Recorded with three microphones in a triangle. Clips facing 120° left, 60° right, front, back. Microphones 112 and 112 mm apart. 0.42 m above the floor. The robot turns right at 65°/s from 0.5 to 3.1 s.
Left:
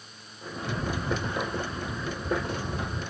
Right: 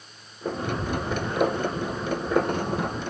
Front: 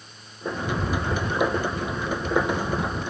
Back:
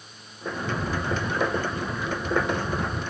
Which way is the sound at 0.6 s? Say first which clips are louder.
Right 1 dB, front 1 dB; 10° right.